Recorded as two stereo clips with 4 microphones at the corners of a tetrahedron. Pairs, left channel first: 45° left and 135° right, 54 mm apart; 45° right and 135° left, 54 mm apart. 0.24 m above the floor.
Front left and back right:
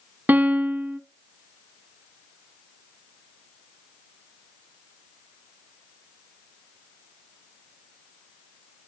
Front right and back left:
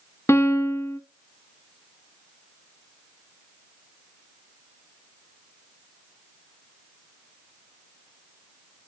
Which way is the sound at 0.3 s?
80° right.